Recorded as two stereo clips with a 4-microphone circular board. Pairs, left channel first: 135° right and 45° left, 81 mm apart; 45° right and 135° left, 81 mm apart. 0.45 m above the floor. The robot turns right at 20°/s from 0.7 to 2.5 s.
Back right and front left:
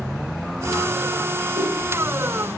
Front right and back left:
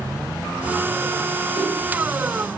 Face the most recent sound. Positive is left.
turn(degrees=5)